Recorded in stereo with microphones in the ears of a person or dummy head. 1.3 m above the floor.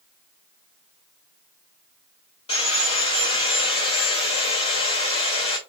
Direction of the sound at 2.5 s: 25° left (ahead or behind).